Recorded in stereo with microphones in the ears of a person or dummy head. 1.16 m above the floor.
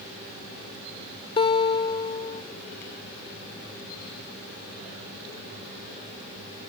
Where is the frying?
No frying in this recording.